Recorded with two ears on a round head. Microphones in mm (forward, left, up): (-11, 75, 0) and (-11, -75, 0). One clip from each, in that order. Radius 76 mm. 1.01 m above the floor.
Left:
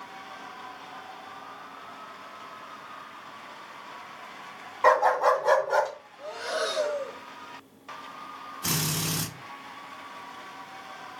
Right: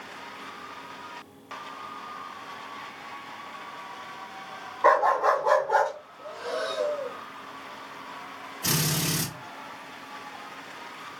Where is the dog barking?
60° left (ahead or behind), 1.9 m; by 5.9 s 35° left (ahead or behind), 2 m.